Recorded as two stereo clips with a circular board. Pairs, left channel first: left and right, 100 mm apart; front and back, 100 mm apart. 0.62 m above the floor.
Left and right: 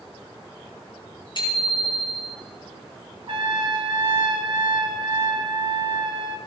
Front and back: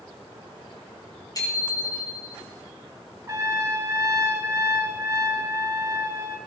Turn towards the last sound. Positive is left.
turn(degrees=-120)